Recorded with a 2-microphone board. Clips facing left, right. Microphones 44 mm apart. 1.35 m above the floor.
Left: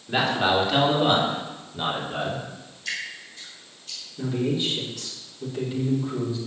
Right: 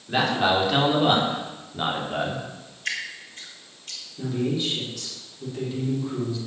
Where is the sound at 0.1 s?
Centre (ahead or behind), 4 m; by 2.5 s 15° right (ahead or behind), 3.5 m.